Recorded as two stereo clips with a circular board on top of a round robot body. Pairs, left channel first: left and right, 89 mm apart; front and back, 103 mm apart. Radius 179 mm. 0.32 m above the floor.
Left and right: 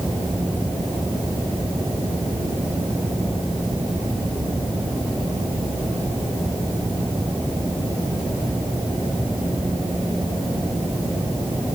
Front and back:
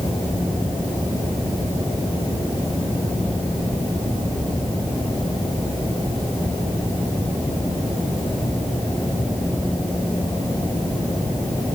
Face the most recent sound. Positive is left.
No sound to turn to.